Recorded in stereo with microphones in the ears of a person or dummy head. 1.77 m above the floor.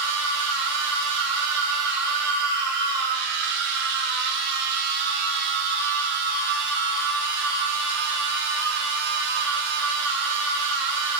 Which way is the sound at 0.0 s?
65° right (ahead or behind).